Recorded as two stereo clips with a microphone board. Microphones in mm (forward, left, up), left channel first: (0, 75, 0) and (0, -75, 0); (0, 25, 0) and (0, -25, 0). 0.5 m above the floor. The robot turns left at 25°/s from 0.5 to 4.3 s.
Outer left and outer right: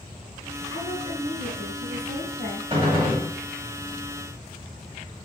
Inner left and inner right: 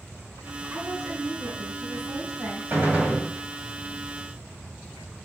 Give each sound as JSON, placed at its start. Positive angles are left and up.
{"t": 0.7, "sound": "a woman speaking", "azimuth_deg": -70, "distance_m": 3.5}
{"t": 2.7, "sound": "a gunshot", "side_deg": -35, "distance_m": 2.5}